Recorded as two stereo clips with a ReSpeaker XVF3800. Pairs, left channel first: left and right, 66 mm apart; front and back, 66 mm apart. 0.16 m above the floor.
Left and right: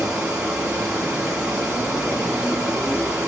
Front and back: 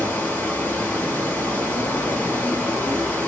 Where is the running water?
35° right, 1.0 m.